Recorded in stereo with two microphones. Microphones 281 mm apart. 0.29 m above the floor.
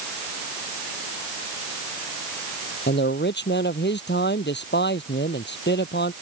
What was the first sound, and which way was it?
A man speaking, 40° left (ahead or behind).